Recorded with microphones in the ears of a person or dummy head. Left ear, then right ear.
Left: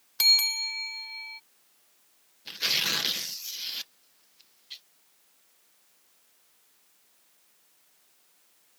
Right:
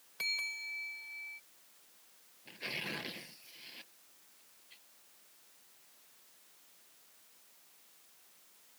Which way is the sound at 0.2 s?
45° left (ahead or behind).